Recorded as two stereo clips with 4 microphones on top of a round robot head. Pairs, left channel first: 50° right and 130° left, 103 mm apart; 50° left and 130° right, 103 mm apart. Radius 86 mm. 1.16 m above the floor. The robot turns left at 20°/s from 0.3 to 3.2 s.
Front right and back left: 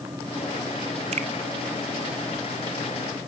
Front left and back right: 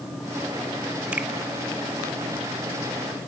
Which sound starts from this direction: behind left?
A finger snap, at 1.1 s.